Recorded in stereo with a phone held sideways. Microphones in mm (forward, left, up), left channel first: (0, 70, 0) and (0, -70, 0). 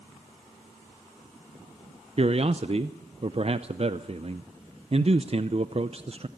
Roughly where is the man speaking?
Right.